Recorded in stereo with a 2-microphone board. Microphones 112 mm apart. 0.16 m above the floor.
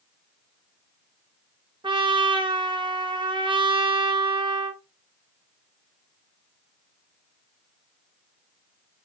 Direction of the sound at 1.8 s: 50° right (ahead or behind).